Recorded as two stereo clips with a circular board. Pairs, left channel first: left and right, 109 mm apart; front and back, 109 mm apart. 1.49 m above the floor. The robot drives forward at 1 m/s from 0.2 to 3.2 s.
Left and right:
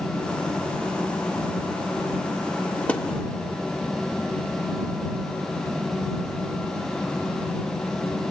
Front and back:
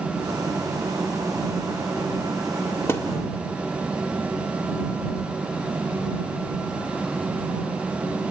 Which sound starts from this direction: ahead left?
A thud, at 2.9 s.